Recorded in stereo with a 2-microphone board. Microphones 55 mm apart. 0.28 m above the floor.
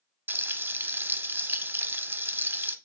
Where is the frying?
40° right (ahead or behind), 0.5 m.